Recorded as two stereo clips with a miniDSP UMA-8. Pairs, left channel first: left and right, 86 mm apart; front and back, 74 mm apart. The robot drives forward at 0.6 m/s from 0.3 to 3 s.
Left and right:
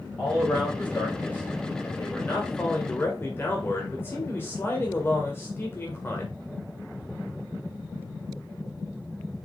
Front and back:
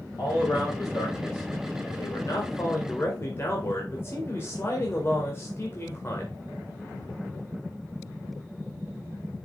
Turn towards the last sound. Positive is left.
turn(degrees=40)